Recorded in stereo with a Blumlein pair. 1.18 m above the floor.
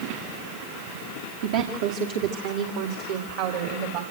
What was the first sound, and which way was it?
A woman speaking, 50° right.